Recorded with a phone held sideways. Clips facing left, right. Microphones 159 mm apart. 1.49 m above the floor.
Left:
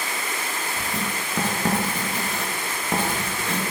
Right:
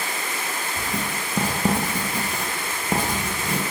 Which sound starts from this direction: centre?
Writing, at 0.8 s.